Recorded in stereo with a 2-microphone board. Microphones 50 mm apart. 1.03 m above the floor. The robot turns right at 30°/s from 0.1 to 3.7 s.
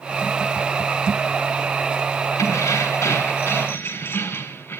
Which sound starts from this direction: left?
Keys jangling, at 2.4 s.